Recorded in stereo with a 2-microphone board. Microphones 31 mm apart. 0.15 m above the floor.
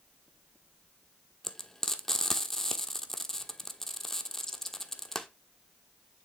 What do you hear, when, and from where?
1.4 s frying: 10° left (ahead or behind), 1.2 m